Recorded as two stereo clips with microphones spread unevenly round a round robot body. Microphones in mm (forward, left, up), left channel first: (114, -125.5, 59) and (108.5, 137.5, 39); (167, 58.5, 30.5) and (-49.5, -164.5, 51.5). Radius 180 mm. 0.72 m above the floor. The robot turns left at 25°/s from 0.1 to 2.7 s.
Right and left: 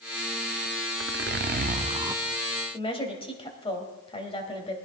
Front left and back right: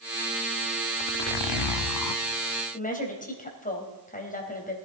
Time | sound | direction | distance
1.0 | a zipper | 45° left | 0.7 m
2.7 | a woman speaking | 20° right | 4 m